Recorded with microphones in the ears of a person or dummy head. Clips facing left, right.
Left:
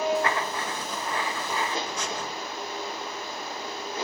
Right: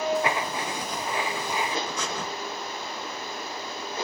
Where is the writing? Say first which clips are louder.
Even; 15° right (ahead or behind), 0.6 m.